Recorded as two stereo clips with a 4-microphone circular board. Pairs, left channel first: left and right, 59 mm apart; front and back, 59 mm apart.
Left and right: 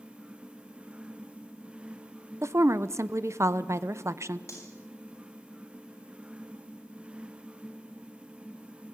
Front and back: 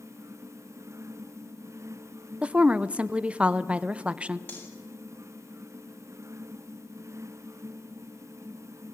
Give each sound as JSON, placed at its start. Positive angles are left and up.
{"t": 2.4, "sound": "a woman speaking", "azimuth_deg": -115, "distance_m": 0.8}
{"t": 4.5, "sound": "cutlery clinking", "azimuth_deg": 50, "distance_m": 7.0}